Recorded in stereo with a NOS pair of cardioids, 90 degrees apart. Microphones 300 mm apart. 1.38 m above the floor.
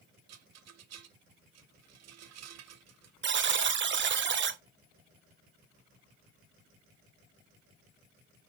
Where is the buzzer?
40° right, 1.0 m.